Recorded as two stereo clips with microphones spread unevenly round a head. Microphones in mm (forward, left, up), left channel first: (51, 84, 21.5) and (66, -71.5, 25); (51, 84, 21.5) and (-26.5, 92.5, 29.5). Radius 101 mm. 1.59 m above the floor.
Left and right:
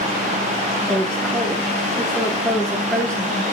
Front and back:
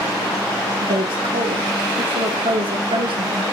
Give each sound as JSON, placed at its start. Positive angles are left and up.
{"t": 0.8, "sound": "a woman speaking", "azimuth_deg": 180, "distance_m": 1.8}